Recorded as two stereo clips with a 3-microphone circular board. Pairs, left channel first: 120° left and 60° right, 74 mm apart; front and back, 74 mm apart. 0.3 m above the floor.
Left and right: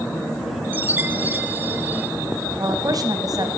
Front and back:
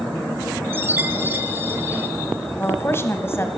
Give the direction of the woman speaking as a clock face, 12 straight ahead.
2 o'clock.